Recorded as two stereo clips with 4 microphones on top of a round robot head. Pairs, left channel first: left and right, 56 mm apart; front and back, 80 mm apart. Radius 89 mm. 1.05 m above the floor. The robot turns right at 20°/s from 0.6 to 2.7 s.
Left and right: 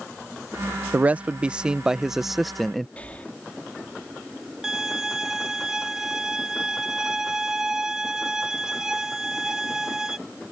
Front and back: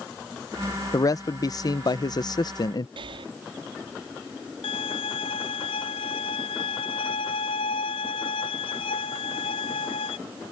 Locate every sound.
0.9 s a man speaking: 30° right; by 2.9 s 5° left
3.0 s breathing: 160° left
4.6 s a violin: 10° right